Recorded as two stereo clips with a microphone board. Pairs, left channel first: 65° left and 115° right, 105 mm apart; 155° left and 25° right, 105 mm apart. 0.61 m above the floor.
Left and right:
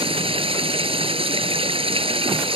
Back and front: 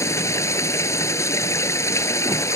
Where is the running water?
140° right.